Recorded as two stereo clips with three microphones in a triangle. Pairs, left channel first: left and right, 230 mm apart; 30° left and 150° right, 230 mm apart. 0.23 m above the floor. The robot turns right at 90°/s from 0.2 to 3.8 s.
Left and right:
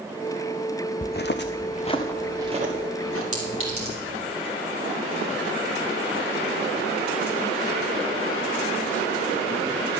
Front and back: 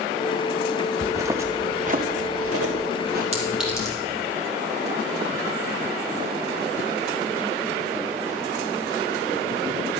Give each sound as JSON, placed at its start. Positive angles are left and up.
{"t": 1.0, "sound": "footsteps", "azimuth_deg": 145, "distance_m": 0.6}
{"t": 3.3, "sound": "a clink", "azimuth_deg": -90, "distance_m": 3.5}